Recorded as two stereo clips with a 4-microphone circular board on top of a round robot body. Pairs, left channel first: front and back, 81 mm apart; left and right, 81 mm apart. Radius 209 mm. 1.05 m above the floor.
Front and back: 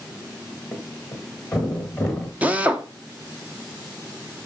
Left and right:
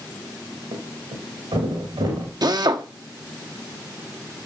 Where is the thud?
85° right, 1.8 m.